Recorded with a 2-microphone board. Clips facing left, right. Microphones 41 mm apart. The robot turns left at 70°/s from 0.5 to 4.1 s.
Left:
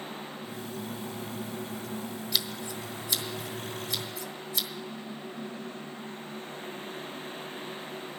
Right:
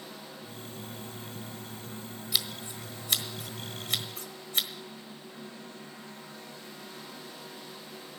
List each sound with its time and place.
2.3 s scissors: 5° right (ahead or behind), 1.3 m; by 4.7 s 45° right (ahead or behind), 1.3 m